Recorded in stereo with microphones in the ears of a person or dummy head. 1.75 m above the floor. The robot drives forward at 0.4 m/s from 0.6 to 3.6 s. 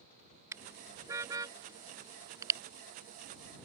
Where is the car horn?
15° right (ahead or behind); by 2.6 s 20° right (ahead or behind).